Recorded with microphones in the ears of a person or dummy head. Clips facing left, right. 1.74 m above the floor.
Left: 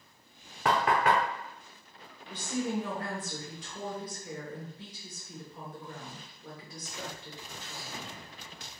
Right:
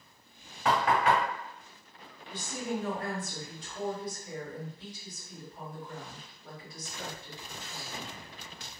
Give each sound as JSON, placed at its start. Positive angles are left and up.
{"t": 0.7, "sound": "knocking", "side_deg": 50, "distance_m": 0.6}
{"t": 2.3, "sound": "a woman speaking", "side_deg": 70, "distance_m": 1.3}